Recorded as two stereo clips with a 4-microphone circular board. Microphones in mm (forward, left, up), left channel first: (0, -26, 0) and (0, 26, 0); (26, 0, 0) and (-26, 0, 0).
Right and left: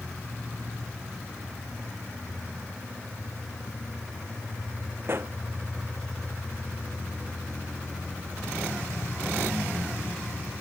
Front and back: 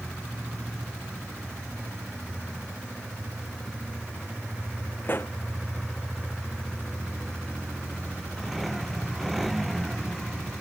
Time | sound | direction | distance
5.0 | a pop | 45° left | ?